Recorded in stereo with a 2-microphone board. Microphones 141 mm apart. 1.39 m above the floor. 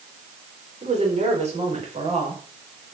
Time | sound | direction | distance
0.8 | a woman speaking | 50° right (ahead or behind) | 4.5 m